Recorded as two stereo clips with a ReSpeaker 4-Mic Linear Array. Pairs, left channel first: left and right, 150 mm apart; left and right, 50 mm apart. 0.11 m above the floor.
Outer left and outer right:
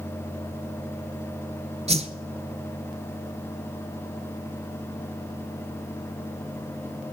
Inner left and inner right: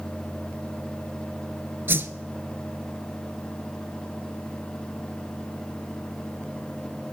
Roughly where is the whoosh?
Right.